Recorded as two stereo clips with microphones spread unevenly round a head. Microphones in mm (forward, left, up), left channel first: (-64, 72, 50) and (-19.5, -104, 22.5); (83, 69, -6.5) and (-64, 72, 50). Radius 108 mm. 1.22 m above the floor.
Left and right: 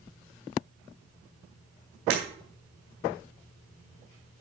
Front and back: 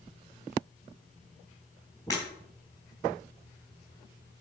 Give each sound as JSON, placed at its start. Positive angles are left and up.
{"t": 2.1, "sound": "breaking glass", "azimuth_deg": -80, "distance_m": 3.5}